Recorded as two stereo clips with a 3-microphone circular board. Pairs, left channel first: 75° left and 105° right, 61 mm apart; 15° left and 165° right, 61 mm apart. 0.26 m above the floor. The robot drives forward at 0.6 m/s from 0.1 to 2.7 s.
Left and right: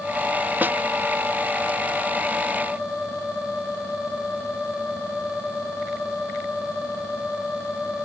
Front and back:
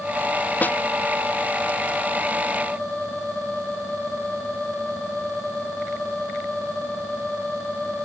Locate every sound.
0.6 s a snare drum: 45° right